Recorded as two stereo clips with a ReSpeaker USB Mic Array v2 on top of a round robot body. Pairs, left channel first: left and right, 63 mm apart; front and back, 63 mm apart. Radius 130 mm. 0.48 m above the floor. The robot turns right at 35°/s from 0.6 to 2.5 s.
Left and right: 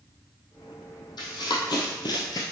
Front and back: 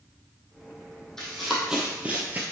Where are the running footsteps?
80° left, 1.7 m; by 2.4 s 115° left, 0.8 m.